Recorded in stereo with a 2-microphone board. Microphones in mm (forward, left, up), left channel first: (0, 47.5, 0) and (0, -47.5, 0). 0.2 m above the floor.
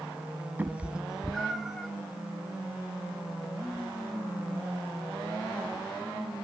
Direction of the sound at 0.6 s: 20° right (ahead or behind).